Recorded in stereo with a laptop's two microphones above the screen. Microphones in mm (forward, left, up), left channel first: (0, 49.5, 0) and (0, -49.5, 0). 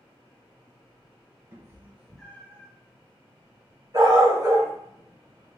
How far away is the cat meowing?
About 0.9 m.